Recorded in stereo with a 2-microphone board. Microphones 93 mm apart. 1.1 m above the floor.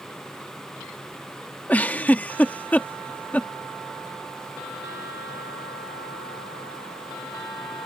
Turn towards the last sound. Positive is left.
turn(degrees=15)  # may be behind; listen again after turning